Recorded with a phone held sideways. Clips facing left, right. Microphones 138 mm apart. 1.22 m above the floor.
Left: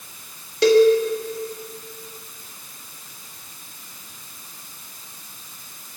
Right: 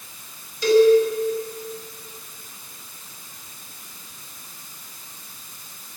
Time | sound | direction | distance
0.6 | a cowbell | 70° left (ahead or behind) | 1.8 m